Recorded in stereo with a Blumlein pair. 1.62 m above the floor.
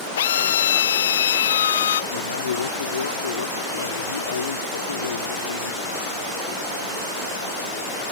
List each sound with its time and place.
0.2 s a drill: 60° left
2.1 s a man speaking: 70° left